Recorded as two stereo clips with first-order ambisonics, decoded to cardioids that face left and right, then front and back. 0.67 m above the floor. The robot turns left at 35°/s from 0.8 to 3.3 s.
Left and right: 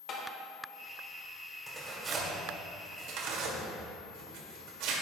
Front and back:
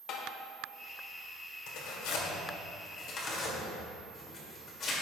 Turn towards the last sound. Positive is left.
turn(degrees=-60)